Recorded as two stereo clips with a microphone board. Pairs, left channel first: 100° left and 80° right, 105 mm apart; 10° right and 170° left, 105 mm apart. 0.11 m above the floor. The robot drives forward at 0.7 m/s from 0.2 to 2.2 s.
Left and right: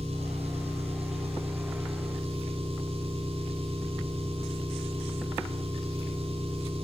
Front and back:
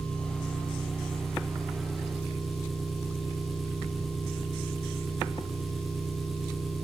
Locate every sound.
0.0 s an engine running: 95° right, 10 m; by 6.8 s 100° right, 10 m